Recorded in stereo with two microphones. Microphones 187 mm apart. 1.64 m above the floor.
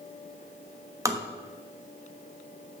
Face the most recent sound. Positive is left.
turn(degrees=-15)  # may be behind; listen again after turning